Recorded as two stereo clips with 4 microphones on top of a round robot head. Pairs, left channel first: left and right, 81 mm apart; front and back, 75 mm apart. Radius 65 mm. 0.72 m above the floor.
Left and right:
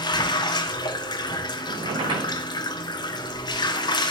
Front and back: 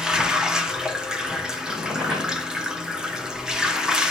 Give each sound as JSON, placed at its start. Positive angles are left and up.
{"t": 0.0, "sound": "running water", "azimuth_deg": 100, "distance_m": 1.5}
{"t": 1.7, "sound": "a squeak", "azimuth_deg": -105, "distance_m": 8.5}